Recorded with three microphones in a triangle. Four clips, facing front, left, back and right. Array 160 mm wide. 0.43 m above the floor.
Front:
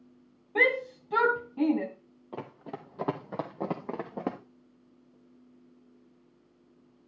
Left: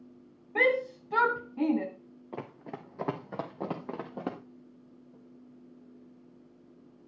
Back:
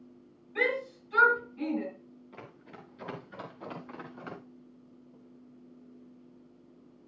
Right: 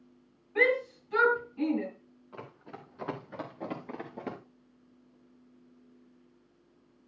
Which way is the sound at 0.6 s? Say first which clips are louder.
Even, front 4 dB; 45° left.